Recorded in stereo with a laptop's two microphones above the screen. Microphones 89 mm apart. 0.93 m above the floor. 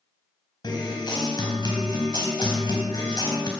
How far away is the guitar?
About 4 m.